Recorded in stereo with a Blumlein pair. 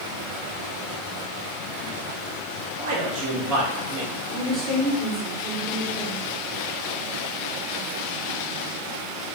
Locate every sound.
2.8 s a man speaking: 40° right, 1.5 m
4.3 s a woman speaking: 20° right, 1.7 m